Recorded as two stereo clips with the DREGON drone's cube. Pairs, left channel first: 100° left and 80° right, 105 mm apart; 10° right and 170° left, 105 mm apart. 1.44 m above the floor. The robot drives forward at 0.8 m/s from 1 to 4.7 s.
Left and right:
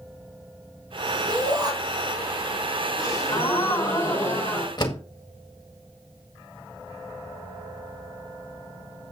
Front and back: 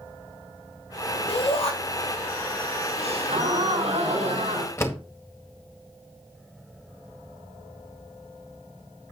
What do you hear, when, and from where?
1.3 s a shout: 30° right, 4 m; by 1.7 s 35° right, 3.5 m
3.0 s a gasp: 160° left, 4 m; by 4.7 s 165° left, 5.5 m
4.8 s a door slam: 50° left, 1.7 m